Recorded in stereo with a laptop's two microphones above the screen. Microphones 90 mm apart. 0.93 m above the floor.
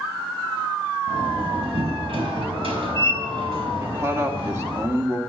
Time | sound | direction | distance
1.1 | a door slam | 85° right | 4.5 m
3.8 | a man speaking | 30° right (ahead or behind) | 2.5 m